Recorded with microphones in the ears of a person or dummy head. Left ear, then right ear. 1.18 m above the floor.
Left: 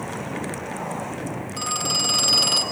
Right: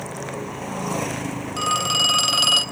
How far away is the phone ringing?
About 0.8 m.